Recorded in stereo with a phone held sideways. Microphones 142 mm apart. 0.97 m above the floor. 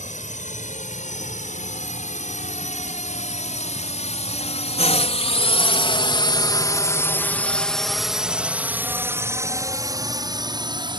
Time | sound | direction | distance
0.0 | a drone | 60° left (ahead or behind) | ?